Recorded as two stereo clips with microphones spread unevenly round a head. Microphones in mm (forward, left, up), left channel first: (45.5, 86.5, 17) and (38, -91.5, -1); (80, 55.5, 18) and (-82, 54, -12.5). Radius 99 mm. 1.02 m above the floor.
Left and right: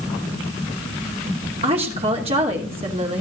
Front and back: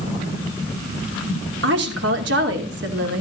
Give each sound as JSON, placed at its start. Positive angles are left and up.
{"t": 1.6, "sound": "a woman speaking", "azimuth_deg": -155, "distance_m": 2.5}